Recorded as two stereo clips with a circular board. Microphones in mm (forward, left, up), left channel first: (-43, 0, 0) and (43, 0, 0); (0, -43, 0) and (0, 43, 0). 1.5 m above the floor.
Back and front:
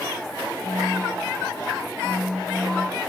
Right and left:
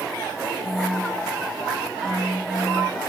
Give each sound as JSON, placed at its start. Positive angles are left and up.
{"t": 0.6, "sound": "a phone buzzing", "azimuth_deg": -80, "distance_m": 2.0}